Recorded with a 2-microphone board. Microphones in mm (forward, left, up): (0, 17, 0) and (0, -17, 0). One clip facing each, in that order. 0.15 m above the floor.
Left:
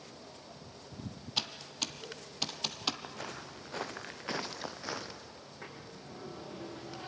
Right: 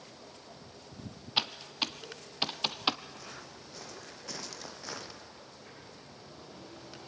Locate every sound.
1.4 s typing on a keyboard: 30° right (ahead or behind), 0.7 m
3.0 s footsteps: 60° left (ahead or behind), 3.5 m; by 5.2 s centre (ahead or behind), 1.8 m
5.4 s a sliding door: 80° left, 6.5 m